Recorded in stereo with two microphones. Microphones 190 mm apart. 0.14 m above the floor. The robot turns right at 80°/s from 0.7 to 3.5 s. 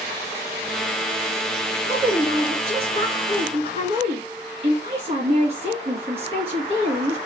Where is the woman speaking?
170° right, 2.5 m; by 7.2 s 40° right, 2.5 m.